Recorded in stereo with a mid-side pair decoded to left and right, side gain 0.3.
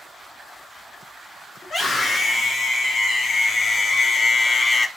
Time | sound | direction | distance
1.6 | a scream | 70° left | 2 m